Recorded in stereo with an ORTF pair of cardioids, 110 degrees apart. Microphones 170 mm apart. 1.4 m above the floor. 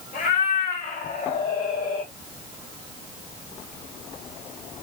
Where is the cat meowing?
60° left, 3 m; by 2.1 s 80° left, 2.5 m.